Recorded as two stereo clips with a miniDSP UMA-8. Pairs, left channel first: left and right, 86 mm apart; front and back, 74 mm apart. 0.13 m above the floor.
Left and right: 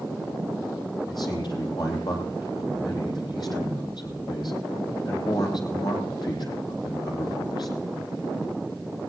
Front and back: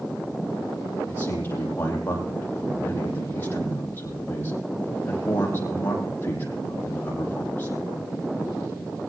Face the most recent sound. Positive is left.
turn(degrees=60)